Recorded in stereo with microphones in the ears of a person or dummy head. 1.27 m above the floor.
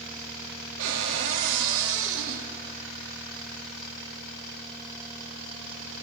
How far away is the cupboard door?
About 2.5 m.